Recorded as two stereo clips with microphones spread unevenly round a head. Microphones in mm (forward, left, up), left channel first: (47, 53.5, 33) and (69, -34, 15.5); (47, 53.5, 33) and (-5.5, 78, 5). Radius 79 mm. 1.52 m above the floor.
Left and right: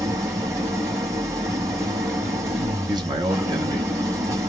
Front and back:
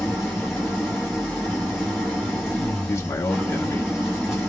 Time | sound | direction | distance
0.0 | an engine running | 50° right | 1.0 m
2.9 | a man speaking | 40° right | 0.8 m